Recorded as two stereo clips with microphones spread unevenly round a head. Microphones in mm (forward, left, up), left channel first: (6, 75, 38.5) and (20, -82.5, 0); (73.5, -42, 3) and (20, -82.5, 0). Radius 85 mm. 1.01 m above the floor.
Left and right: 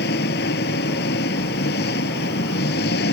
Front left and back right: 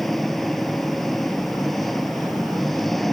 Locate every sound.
0.0 s an engine running: 125° left